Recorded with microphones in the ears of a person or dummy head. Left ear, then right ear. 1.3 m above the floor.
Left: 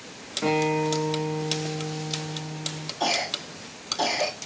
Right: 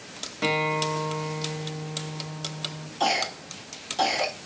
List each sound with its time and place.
0.4 s a guitar: 75° right (ahead or behind), 1.9 m
3.0 s a cough: 30° right (ahead or behind), 1.2 m